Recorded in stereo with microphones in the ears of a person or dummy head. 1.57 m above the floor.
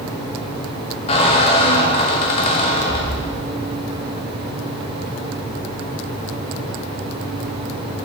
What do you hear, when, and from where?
1.1 s a squeak: 35° left (ahead or behind), 1.0 m